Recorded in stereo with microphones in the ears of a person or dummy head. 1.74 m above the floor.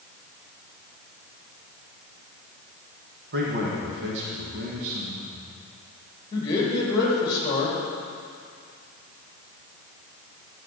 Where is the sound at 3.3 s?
65° right (ahead or behind), 1.4 m.